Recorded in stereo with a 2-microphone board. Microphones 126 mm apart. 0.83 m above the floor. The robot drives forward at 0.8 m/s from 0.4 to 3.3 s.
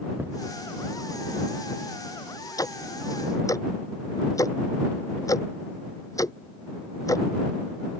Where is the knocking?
15° right (ahead or behind).